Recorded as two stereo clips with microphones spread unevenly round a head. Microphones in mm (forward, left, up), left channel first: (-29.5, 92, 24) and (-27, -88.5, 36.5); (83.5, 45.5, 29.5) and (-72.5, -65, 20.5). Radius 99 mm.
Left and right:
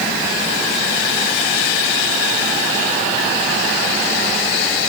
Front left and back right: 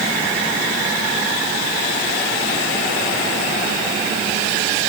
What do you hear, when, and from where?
Only background noise.